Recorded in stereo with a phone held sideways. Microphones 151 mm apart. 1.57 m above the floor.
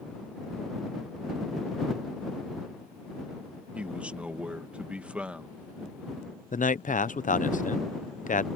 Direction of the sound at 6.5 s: 60° left (ahead or behind).